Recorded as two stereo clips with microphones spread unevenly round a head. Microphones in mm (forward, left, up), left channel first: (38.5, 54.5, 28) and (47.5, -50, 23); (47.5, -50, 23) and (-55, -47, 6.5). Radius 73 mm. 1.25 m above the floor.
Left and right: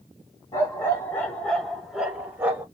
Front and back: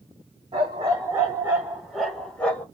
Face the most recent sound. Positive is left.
turn(degrees=-35)